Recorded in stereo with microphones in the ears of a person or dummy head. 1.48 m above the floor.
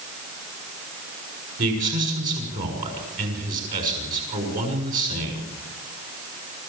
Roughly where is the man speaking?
Right.